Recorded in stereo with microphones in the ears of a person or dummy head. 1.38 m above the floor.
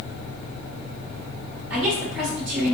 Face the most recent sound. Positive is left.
turn(degrees=-5)  # may be behind; listen again after turning